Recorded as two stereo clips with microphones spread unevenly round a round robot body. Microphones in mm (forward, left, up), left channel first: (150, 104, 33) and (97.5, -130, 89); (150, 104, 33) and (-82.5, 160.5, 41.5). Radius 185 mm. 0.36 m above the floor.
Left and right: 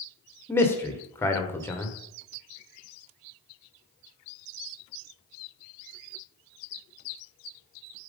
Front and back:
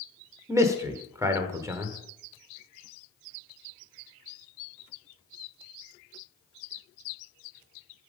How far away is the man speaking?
About 1.2 m.